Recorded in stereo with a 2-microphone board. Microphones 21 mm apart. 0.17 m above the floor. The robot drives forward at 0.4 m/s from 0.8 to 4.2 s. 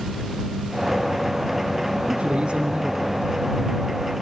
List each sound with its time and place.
2.1 s a man speaking: 55° right (ahead or behind), 3 m; by 3.3 s 60° right (ahead or behind), 3 m